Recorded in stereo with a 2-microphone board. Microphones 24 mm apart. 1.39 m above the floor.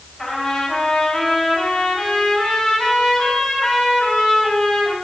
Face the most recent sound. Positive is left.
turn(degrees=30)  # may be behind; listen again after turning